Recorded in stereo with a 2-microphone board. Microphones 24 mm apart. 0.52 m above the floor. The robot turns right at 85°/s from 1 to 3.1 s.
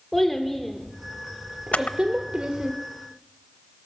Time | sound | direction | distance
0.1 | a child speaking | 10° left (ahead or behind) | 1.2 m
1.7 | a camera shutter | 80° left | 0.6 m